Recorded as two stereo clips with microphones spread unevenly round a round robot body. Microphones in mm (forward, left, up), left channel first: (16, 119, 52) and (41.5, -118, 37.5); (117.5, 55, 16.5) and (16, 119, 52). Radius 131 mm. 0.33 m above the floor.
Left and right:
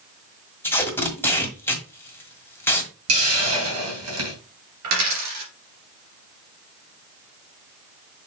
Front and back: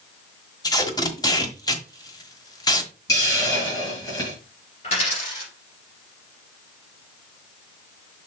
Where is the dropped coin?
85° right, 3 m.